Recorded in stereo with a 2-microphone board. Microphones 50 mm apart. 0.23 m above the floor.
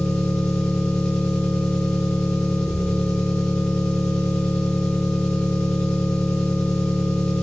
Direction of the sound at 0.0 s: 15° left (ahead or behind).